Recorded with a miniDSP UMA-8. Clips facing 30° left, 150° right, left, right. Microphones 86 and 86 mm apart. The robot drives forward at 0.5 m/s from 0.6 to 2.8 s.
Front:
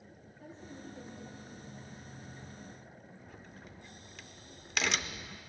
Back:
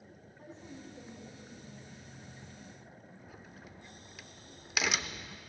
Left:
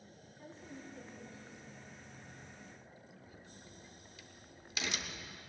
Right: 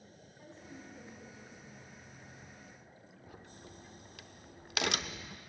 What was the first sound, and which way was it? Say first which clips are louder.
A woman speaking: front 1 dB, left 1 dB; 160° right.